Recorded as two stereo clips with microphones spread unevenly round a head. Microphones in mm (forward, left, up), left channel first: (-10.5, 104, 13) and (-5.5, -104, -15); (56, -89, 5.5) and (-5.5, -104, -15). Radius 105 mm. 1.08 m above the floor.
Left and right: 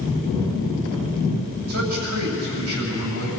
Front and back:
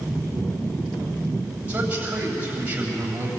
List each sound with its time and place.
1.7 s a man speaking: 100° right, 7.5 m